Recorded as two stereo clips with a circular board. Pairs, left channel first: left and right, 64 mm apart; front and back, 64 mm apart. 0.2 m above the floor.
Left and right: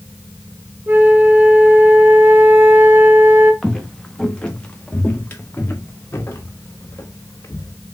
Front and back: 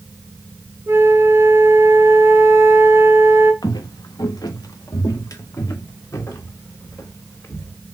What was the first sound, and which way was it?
A flute, 140° right.